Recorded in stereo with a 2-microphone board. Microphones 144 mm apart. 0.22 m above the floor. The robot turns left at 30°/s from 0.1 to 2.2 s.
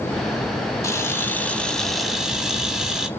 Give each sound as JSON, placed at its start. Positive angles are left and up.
{"t": 0.8, "sound": "a camera shutter", "azimuth_deg": 35, "distance_m": 1.5}